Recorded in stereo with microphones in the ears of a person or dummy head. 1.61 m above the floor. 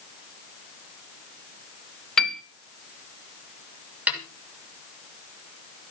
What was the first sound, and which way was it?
A piano, 10° left (ahead or behind).